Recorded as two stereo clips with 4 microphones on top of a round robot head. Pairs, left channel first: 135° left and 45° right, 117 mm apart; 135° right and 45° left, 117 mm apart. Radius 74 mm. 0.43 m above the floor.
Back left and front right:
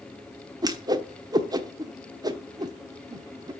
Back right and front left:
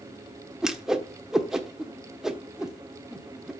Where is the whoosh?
40° right, 1.1 m.